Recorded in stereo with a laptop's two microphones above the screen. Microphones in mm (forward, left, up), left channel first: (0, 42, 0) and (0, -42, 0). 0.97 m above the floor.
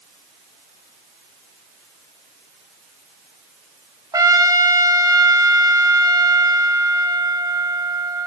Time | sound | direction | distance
4.1 | a trumpet | 45° right (ahead or behind) | 1.4 m